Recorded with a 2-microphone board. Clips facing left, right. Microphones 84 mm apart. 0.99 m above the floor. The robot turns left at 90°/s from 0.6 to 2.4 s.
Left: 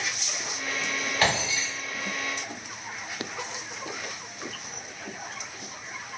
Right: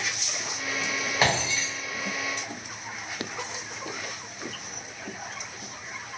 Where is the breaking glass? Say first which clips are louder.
Right 1 dB; 20° right (ahead or behind), 1.4 m; by 1.7 s 20° left (ahead or behind), 1.4 m.